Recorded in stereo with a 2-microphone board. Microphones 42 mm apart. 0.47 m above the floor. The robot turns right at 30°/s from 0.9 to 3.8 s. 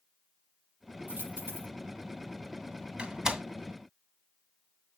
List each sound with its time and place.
1.1 s a dropped coin: 45° right (ahead or behind), 6 m; by 1.7 s 60° right (ahead or behind), 6 m
3.0 s a door slam: 30° right (ahead or behind), 2 m; by 3.4 s 15° right (ahead or behind), 2 m